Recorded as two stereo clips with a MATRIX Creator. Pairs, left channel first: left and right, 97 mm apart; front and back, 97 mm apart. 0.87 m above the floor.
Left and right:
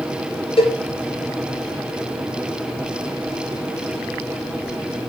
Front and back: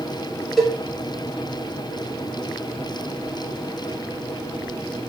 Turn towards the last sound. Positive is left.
turn(degrees=90)